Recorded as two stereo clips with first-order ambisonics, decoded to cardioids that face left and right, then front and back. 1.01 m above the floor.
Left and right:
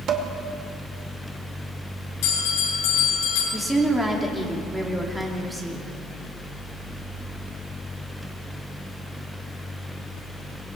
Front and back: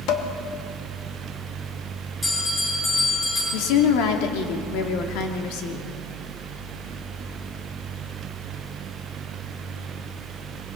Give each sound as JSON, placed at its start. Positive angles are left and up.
{"t": 0.1, "sound": "dishes clattering", "azimuth_deg": -40, "distance_m": 2.0}
{"t": 2.2, "sound": "a bell", "azimuth_deg": 75, "distance_m": 9.5}
{"t": 3.5, "sound": "a woman speaking", "azimuth_deg": -5, "distance_m": 2.5}